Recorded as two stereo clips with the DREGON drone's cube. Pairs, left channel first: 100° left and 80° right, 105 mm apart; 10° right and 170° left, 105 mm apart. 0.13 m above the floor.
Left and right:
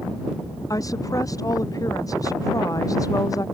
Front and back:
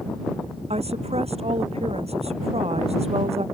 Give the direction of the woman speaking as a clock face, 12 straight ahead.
7 o'clock.